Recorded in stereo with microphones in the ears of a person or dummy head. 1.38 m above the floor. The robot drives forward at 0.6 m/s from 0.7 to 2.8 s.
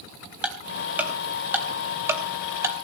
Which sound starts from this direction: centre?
Ticking, at 0.4 s.